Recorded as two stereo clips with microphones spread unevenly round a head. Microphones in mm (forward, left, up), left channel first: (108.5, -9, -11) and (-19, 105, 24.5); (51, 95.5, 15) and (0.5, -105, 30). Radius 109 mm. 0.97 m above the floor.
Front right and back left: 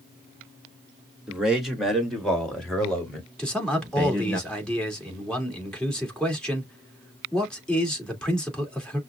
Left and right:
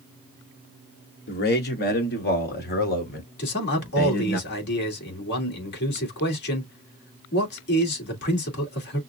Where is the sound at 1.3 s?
50° left, 2 m; by 4.4 s 40° left, 4 m.